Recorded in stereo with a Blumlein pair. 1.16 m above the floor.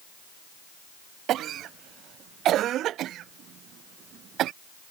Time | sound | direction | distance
1.3 | a cough | 30° right | ?